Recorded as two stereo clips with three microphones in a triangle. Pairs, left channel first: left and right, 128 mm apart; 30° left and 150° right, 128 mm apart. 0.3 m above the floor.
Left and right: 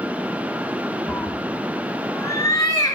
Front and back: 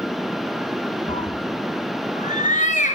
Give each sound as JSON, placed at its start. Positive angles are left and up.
{"t": 1.1, "sound": "a cat meowing", "azimuth_deg": 15, "distance_m": 1.4}